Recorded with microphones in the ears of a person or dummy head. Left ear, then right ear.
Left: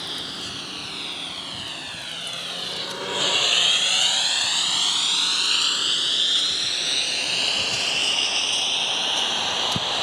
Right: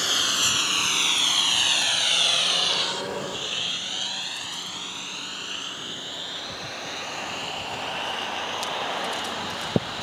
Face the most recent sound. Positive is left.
turn(degrees=45)  # may be behind; listen again after turning